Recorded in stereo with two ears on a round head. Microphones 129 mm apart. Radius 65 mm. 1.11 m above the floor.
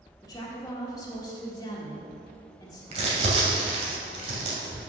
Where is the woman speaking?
25° left (ahead or behind), 1.6 m.